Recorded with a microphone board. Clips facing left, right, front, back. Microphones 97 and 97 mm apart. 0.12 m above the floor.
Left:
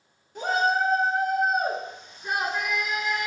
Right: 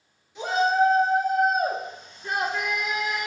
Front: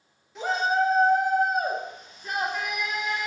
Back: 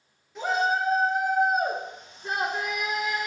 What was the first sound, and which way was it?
A shout, 90° left.